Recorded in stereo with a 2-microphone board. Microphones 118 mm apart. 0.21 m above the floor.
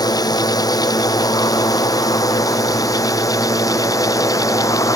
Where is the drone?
35° left (ahead or behind); by 5.0 s 25° left (ahead or behind).